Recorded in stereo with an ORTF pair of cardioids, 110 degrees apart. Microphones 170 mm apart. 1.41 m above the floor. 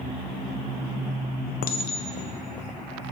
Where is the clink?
60° left, 1.0 m.